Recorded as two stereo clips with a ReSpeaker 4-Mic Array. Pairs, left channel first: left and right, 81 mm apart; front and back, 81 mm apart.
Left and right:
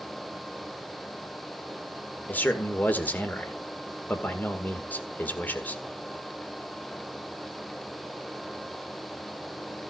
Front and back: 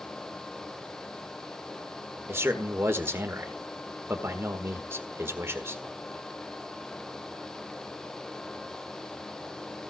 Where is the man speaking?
145° left, 1.5 m.